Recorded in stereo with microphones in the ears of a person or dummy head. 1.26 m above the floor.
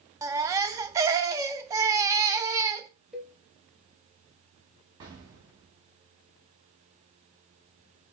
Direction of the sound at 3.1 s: 5° right (ahead or behind).